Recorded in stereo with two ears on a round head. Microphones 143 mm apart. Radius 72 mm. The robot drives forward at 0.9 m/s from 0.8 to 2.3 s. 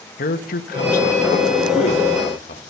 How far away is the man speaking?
About 1.9 m.